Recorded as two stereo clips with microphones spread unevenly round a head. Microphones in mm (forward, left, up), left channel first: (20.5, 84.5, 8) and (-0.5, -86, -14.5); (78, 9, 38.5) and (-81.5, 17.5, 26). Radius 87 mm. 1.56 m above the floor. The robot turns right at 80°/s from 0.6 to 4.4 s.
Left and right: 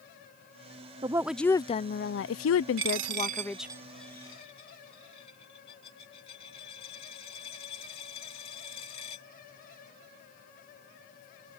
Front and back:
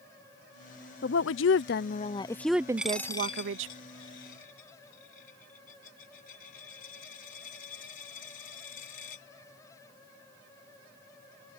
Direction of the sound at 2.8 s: 100° right.